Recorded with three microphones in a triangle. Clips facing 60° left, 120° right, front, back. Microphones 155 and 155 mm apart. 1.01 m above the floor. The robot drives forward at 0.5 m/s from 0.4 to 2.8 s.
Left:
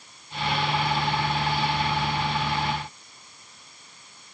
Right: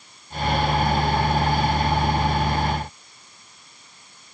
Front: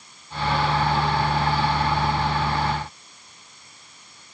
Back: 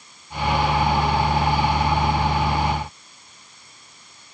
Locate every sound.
Only background noise.